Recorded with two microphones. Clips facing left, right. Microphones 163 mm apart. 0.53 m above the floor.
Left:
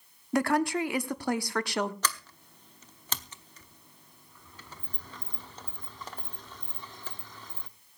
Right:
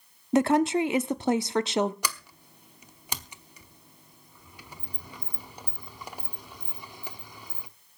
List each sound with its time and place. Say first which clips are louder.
0.3 s a woman speaking: right 5 dB; 20° right (ahead or behind), 0.7 m
2.0 s a sliding door: left 1 dB; 10° right (ahead or behind), 0.9 m